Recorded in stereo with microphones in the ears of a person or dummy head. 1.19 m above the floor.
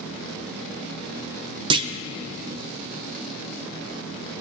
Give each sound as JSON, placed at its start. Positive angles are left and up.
{"t": 1.7, "sound": "a clunk", "side_deg": -25, "distance_m": 0.5}